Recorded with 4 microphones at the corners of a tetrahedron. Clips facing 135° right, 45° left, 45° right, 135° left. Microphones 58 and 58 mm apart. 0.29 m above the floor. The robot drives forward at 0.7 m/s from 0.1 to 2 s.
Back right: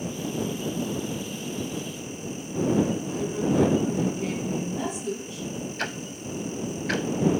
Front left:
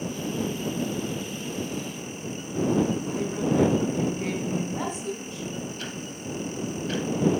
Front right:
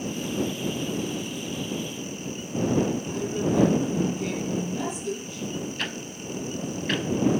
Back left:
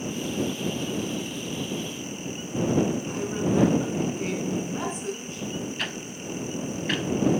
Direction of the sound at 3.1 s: 90° left.